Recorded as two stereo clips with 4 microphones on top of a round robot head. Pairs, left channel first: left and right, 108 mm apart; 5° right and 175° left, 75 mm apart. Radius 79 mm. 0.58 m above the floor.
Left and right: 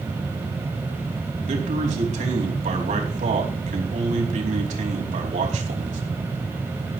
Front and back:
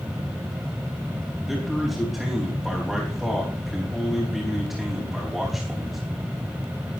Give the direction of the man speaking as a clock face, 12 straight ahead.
3 o'clock.